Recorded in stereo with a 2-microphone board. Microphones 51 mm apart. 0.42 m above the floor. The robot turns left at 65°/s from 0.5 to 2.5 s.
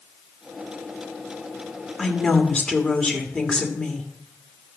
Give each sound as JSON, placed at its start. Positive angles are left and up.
{"t": 2.0, "sound": "a woman speaking", "side_deg": 5, "distance_m": 1.4}